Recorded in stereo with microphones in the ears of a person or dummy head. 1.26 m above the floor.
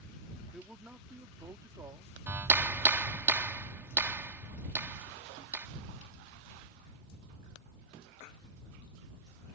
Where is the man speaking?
Centre (ahead or behind); by 2.2 s 20° right (ahead or behind).